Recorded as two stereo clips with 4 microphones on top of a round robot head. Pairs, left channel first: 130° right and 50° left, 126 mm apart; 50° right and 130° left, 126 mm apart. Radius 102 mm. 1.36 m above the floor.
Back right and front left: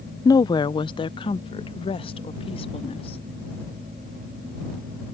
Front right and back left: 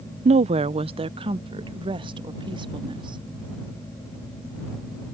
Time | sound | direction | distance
0.2 | a woman speaking | 165° left | ?